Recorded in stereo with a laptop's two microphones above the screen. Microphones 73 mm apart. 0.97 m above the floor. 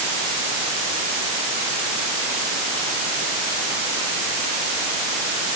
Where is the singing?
I don't hear singing.